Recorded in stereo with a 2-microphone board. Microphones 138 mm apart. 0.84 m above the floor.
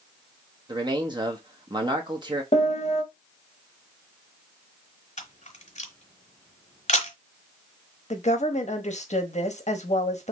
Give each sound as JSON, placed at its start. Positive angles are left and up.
{"t": 0.7, "sound": "a man speaking", "side_deg": -35, "distance_m": 0.9}
{"t": 2.5, "sound": "a piano", "side_deg": 50, "distance_m": 1.4}
{"t": 5.2, "sound": "a camera shutter", "side_deg": 60, "distance_m": 1.1}
{"t": 8.1, "sound": "a woman speaking", "side_deg": 55, "distance_m": 1.1}